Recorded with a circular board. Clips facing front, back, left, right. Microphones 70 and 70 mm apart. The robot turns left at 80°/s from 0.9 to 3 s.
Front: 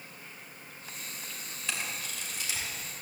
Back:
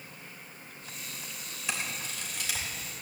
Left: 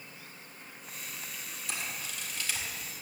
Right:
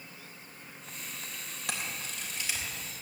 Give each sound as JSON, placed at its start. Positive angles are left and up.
{"t": 1.7, "sound": "a camera shutter", "azimuth_deg": -100, "distance_m": 3.0}